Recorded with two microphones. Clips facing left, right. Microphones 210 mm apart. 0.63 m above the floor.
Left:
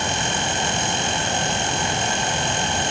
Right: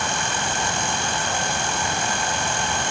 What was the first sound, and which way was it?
Only background noise.